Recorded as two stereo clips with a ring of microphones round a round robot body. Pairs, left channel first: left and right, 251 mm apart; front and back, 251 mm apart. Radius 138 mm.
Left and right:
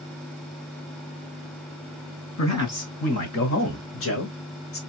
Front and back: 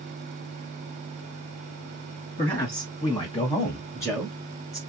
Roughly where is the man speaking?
Left.